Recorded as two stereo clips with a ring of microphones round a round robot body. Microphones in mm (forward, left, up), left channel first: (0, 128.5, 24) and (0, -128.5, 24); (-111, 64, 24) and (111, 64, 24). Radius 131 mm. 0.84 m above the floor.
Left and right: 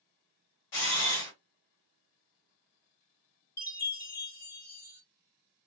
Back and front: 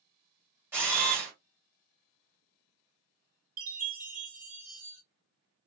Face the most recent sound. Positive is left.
turn(degrees=45)